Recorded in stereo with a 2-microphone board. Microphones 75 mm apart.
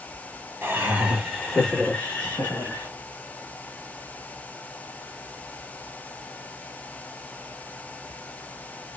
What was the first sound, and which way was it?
Laughter, 25° right (ahead or behind).